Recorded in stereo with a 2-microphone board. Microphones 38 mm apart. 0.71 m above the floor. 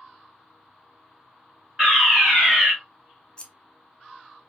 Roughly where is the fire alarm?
Centre.